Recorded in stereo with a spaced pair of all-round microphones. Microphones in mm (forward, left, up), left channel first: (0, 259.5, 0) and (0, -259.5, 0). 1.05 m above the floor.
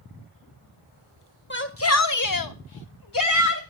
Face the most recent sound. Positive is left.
turn(degrees=30)  # may be behind; listen again after turning